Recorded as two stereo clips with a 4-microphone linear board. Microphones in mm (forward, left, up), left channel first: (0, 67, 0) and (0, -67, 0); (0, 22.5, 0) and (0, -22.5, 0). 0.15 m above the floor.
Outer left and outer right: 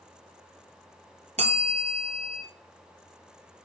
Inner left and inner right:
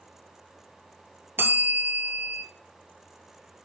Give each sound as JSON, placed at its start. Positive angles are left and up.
{"t": 1.4, "sound": "a bell", "side_deg": -55, "distance_m": 0.9}